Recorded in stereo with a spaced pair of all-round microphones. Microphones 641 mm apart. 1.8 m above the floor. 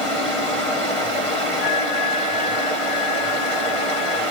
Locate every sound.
0.0 s running water: 50° left (ahead or behind), 1.7 m
1.6 s a flute: 20° left (ahead or behind), 1.3 m